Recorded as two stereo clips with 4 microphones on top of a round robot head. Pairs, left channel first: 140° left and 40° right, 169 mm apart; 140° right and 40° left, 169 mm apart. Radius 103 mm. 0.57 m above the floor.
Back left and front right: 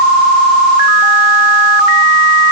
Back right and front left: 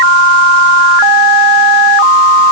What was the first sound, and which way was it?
Only background noise.